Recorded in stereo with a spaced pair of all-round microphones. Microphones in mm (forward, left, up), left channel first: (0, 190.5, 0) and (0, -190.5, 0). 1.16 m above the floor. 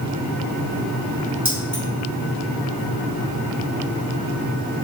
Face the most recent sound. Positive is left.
turn(degrees=-70)  # may be behind; listen again after turning